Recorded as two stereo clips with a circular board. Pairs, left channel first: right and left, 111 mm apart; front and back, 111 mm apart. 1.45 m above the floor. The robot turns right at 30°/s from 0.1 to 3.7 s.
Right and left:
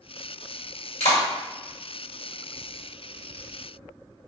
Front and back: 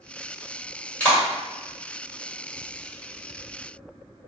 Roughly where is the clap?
Right.